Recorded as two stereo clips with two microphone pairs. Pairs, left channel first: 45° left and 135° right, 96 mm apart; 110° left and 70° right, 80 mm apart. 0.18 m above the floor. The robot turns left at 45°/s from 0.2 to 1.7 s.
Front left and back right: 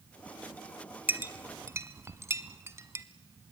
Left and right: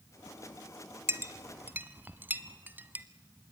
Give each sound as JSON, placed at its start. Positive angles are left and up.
{"t": 1.1, "sound": "a clink", "azimuth_deg": -80, "distance_m": 1.1}